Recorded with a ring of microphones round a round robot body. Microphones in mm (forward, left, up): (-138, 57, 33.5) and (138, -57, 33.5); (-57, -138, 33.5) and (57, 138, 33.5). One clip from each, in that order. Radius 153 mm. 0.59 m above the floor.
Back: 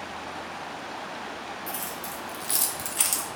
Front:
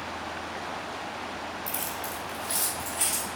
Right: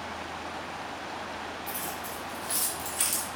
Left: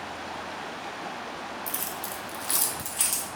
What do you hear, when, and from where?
1.7 s keys jangling: 50° left, 0.9 m; by 3.3 s 160° left, 1.0 m